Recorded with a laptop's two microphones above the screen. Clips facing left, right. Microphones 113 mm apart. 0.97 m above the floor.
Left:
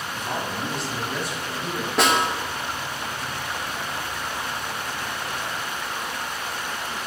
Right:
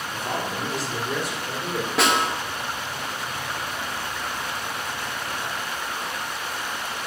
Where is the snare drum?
Centre (ahead or behind), 1.1 m.